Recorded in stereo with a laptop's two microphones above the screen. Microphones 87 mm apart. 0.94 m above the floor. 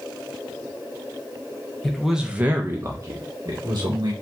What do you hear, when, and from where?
1.8 s a man speaking: 5° left (ahead or behind), 0.8 m; by 4.1 s 60° right (ahead or behind), 1.2 m